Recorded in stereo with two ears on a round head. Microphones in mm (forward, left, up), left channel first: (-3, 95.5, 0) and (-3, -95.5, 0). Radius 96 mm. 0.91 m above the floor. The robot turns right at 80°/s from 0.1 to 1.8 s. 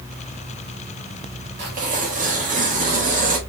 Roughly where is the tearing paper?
Right.